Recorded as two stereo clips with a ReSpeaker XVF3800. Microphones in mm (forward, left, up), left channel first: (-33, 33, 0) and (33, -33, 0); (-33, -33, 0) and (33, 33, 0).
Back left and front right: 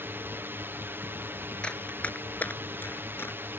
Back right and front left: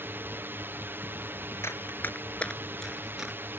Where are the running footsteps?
155° right; by 3.4 s 120° left.